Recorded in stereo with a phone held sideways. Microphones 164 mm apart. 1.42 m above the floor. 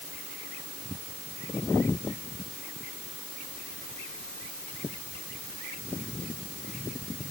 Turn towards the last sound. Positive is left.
No sound to turn to.